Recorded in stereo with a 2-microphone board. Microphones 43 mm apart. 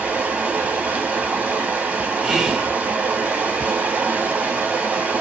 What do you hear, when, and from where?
0.0 s running water: 40° right (ahead or behind), 1.5 m
2.2 s whispering: 10° right (ahead or behind), 0.8 m